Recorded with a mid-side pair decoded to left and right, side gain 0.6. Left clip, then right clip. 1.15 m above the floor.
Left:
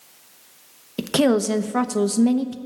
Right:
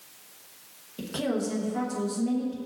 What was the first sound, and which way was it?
A woman speaking, 60° left.